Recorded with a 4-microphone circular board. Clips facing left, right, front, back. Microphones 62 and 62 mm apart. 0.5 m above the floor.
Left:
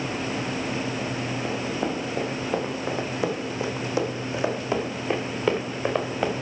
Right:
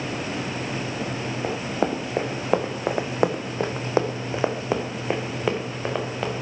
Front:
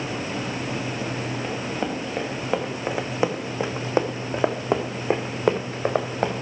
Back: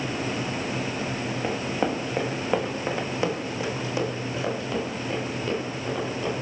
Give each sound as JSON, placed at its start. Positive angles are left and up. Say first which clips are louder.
{"t": 1.4, "sound": "running footsteps", "louder": "right 4 dB, back 4 dB", "azimuth_deg": -105, "distance_m": 2.0}